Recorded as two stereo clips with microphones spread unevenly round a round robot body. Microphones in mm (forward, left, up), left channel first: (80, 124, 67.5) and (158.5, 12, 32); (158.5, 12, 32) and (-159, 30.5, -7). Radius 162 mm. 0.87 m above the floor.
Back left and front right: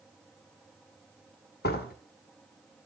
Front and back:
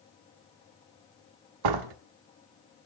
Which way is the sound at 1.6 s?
160° left.